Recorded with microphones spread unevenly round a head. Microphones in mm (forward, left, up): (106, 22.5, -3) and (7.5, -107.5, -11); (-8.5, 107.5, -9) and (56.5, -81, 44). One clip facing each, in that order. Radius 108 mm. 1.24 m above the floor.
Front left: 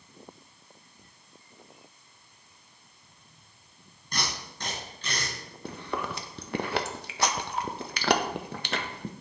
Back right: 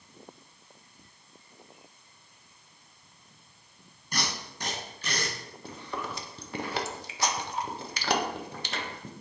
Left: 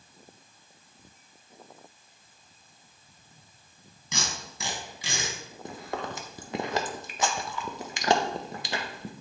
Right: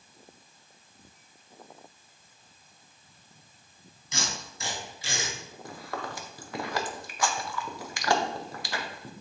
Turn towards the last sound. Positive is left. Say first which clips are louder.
# front left 4 dB, left 3 dB
turn(degrees=35)